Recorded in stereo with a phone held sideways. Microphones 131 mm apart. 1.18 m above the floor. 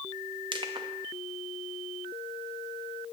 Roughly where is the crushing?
Right.